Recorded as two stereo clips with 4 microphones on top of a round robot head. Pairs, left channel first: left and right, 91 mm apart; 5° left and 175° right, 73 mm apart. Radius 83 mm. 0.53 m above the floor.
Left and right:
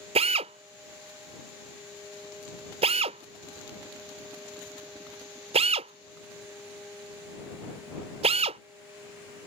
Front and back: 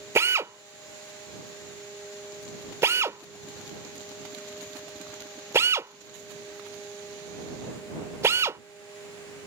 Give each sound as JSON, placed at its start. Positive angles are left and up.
{"t": 0.1, "sound": "a drill", "azimuth_deg": -110}